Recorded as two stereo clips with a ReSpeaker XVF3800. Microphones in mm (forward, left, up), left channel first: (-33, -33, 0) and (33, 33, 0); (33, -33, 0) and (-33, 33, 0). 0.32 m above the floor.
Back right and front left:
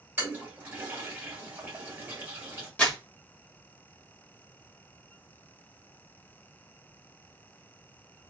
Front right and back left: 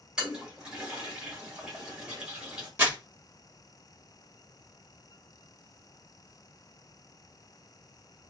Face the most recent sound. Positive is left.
turn(degrees=170)